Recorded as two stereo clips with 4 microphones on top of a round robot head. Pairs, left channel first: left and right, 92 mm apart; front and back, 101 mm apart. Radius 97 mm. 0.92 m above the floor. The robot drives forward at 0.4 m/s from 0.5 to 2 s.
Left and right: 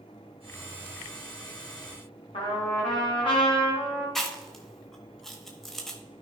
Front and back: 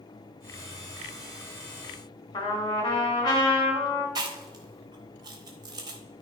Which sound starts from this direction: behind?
Chewing, at 4.2 s.